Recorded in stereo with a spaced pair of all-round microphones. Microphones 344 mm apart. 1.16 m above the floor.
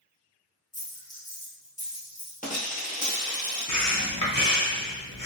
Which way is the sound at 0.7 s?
25° left (ahead or behind).